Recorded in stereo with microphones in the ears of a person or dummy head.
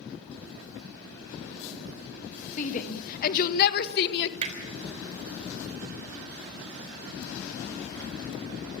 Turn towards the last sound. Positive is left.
turn(degrees=-30)  # may be behind; listen again after turning